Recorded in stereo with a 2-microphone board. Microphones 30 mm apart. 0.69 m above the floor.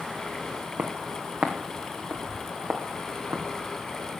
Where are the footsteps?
55° right (ahead or behind), 1.8 m; by 3.4 s 70° right (ahead or behind), 3 m.